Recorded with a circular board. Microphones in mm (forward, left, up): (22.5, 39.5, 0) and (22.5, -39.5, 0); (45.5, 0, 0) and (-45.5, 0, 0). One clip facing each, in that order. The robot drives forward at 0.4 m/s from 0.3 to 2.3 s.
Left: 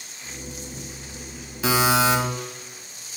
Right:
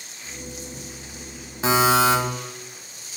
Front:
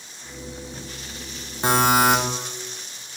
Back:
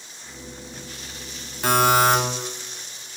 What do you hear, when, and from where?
1.6 s a buzzer: 55° right, 1.4 m; by 2.2 s 65° right, 1.3 m